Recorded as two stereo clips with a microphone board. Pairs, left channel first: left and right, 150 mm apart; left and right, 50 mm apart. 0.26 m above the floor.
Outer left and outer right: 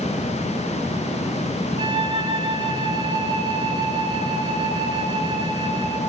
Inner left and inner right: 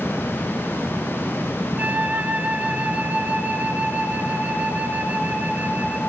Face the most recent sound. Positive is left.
turn(degrees=-35)  # may be behind; listen again after turning